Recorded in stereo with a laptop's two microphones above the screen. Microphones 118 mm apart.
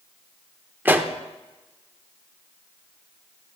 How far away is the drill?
I don't hear a drill.